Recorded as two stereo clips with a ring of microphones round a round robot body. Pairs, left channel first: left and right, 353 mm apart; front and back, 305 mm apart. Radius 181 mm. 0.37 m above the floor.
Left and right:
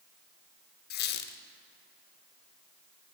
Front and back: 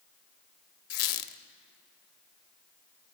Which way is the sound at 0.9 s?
25° left.